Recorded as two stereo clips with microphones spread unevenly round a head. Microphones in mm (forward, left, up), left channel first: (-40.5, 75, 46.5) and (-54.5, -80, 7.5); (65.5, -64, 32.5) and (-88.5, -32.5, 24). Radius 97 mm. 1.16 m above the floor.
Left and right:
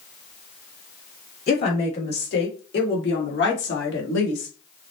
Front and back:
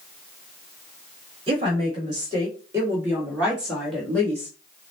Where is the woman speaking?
105° left, 3 m; by 4.5 s 65° left, 1.5 m.